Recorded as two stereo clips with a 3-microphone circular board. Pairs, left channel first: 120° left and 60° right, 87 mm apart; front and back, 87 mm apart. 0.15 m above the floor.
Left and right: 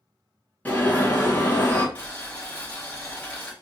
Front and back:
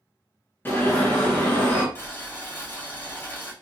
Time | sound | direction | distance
0.7 | an alarm | 55° left | 1.8 m
1.9 | boiling | 50° left | 2.5 m